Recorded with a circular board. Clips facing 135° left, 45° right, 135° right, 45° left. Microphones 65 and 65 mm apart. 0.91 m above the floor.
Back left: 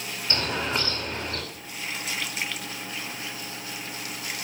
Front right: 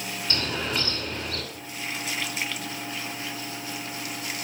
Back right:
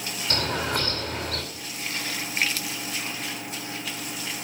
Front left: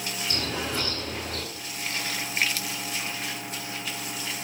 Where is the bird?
165° right, 5 m.